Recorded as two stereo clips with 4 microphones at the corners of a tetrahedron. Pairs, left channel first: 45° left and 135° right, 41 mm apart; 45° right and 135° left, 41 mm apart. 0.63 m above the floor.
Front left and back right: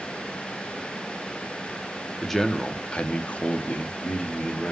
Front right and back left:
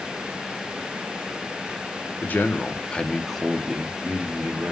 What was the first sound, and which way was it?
A man speaking, 40° right.